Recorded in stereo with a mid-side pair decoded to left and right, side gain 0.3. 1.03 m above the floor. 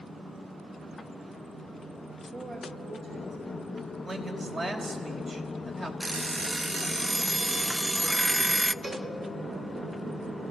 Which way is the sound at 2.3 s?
60° right.